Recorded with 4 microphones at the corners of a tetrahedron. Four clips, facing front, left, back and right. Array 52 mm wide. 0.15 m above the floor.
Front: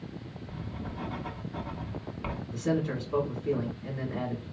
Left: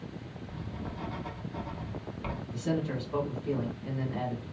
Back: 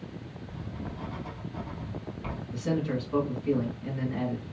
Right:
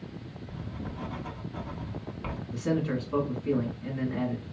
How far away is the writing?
About 0.7 m.